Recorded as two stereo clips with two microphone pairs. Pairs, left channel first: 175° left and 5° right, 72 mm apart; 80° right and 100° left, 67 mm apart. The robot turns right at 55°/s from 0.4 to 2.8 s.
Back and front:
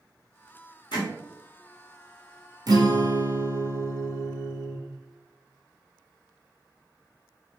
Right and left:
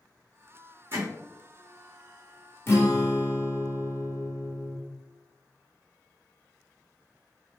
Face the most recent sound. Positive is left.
turn(degrees=-25)